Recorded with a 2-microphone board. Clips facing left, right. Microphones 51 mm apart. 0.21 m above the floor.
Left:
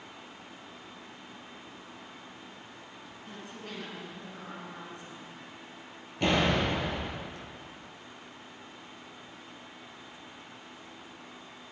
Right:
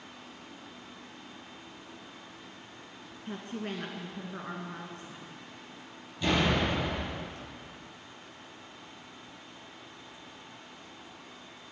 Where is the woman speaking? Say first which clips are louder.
Right 7 dB; 40° right (ahead or behind), 2 m.